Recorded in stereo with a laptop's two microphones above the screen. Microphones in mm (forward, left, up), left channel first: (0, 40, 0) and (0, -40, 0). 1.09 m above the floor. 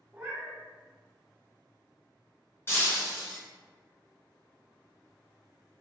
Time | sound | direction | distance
0.1 | a cat meowing | 20° right (ahead or behind) | 0.6 m
2.7 | breaking glass | 30° left (ahead or behind) | 1.5 m